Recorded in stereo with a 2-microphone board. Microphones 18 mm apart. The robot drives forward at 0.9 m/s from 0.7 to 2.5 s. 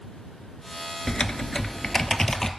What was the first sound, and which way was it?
Typing on a keyboard, 35° left (ahead or behind).